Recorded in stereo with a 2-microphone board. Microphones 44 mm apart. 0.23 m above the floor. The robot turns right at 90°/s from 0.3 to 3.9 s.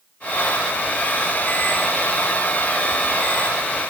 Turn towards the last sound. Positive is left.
No sound to turn to.